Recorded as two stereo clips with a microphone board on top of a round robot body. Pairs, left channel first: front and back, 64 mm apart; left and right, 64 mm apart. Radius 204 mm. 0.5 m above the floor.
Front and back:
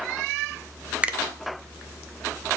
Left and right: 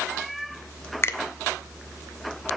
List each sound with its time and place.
1.0 s a finger snap: 120° left, 0.9 m